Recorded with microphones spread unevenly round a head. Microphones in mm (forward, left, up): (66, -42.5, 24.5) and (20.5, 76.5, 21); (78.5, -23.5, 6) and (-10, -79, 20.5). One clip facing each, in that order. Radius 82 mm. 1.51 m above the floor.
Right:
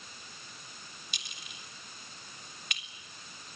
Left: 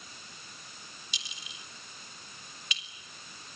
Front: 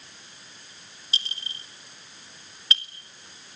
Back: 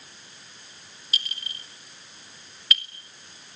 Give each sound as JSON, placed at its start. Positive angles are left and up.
{"t": 1.1, "sound": "a clink", "azimuth_deg": -30, "distance_m": 3.5}